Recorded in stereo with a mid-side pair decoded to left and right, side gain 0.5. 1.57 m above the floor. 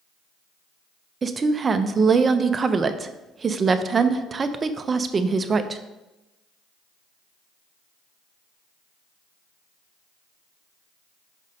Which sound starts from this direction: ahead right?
A woman speaking, at 1.2 s.